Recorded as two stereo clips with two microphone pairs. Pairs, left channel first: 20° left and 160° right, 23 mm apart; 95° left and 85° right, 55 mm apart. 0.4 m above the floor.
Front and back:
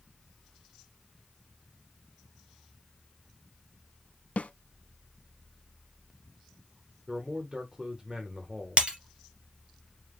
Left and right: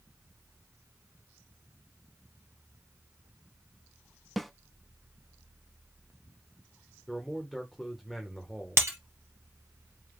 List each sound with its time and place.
4.4 s a snare drum: 10° left, 0.5 m
7.1 s a man speaking: 175° right, 1.0 m
8.8 s breaking glass: 115° right, 2.5 m